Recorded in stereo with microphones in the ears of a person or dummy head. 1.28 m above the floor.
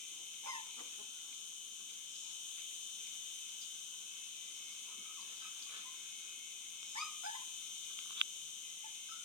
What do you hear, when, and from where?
0.0 s an insect: 10° left (ahead or behind), 2.5 m